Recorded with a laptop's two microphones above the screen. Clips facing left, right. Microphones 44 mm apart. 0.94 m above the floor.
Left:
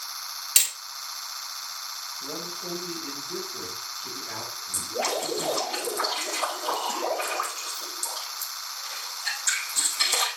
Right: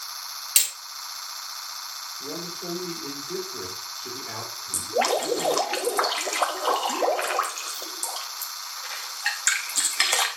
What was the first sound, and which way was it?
Hammering, centre (ahead or behind).